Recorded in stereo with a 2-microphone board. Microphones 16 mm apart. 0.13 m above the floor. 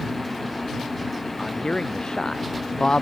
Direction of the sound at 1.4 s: 70° left (ahead or behind).